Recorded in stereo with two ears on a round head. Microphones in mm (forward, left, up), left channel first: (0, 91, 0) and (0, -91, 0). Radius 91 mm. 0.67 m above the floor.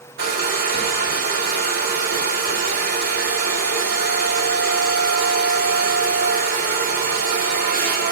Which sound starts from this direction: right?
A hair dryer, at 0.2 s.